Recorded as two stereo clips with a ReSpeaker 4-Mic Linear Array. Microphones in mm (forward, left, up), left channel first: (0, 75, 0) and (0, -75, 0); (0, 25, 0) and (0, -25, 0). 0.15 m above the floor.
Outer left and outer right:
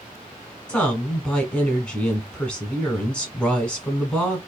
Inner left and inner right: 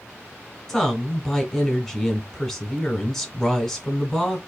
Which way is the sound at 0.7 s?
5° left (ahead or behind).